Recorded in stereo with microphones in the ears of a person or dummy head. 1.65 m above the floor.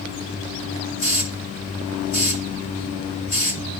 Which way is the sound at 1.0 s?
40° left (ahead or behind).